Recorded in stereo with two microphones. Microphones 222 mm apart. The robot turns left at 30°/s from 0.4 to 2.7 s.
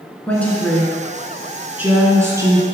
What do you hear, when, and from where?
0.3 s a woman speaking: 5° left (ahead or behind), 1.1 m; by 2.6 s 15° right (ahead or behind), 1.1 m